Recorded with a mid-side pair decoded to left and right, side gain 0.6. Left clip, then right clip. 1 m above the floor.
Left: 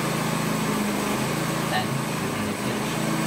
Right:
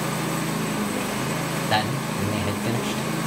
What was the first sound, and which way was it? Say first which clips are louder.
A man speaking: right 2 dB; 65° right.